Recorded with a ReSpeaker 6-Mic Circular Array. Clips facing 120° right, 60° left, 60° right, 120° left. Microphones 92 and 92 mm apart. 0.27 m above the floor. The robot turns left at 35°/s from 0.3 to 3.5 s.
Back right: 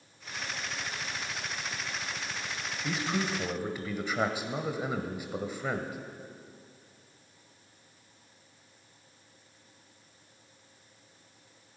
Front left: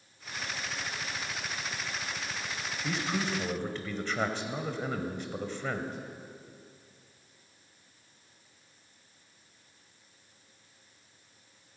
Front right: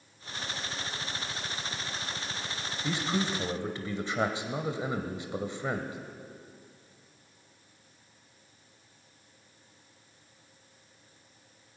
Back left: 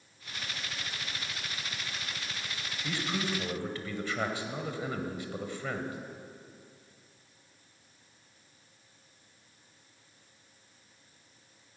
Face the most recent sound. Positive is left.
turn(degrees=-55)